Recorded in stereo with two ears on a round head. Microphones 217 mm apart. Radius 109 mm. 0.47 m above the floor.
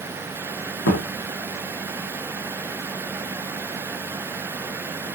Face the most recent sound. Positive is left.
turn(degrees=50)  # may be behind; listen again after turning